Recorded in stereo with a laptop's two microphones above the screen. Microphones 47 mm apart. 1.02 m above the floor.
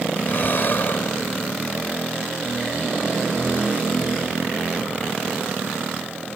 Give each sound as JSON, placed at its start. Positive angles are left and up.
{"t": 0.2, "sound": "breathing", "side_deg": 50}